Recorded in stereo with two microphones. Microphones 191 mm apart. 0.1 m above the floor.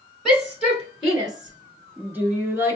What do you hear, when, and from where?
0.2 s a shout: centre (ahead or behind), 1.6 m; by 2.8 s 15° right (ahead or behind), 1.3 m